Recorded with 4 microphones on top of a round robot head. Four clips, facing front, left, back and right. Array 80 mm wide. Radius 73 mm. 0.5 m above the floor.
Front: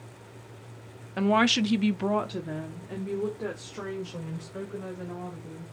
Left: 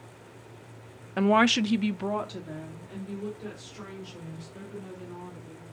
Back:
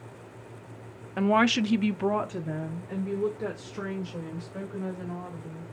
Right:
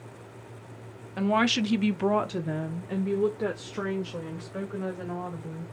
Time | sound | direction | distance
1.2 | a woman speaking | 95° left | 0.7 m